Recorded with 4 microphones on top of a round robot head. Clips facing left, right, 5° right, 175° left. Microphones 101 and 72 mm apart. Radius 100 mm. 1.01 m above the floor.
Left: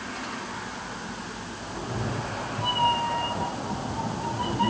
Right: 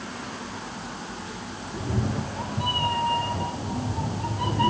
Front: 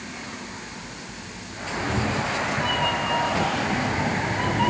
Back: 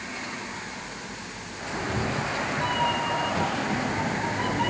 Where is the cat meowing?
95° right, 7 m; by 4.7 s 80° right, 8 m.